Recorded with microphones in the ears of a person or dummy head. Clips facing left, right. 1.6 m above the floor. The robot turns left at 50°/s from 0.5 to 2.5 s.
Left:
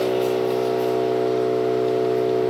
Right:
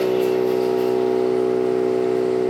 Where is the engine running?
50° right, 0.8 m; by 2.5 s 150° right, 0.8 m.